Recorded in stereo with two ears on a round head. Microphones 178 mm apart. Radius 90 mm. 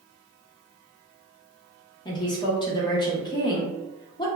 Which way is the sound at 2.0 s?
20° left (ahead or behind).